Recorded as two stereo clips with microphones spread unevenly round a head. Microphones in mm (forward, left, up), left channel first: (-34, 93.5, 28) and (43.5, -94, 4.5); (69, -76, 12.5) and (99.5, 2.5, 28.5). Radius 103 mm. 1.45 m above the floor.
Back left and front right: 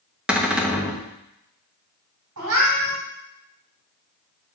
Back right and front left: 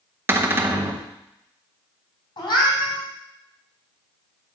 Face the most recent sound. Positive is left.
turn(degrees=-90)